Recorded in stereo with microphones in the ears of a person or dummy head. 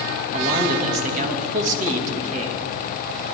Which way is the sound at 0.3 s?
40° right (ahead or behind).